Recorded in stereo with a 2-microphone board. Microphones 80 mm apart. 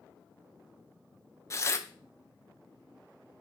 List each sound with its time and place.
1.5 s tearing paper: 35° left (ahead or behind), 0.7 m